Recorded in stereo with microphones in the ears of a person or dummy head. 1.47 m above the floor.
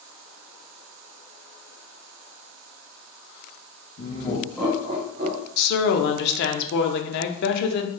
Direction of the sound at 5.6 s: 65° left (ahead or behind).